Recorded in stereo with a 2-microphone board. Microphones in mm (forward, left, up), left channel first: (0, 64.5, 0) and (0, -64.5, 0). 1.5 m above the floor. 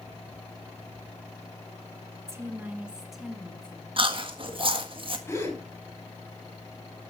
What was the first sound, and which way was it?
A woman speaking, 25° right (ahead or behind).